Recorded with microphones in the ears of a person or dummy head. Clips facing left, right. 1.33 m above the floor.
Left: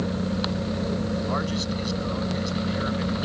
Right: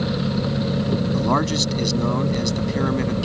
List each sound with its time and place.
1.1 s a man speaking: 70° right (ahead or behind)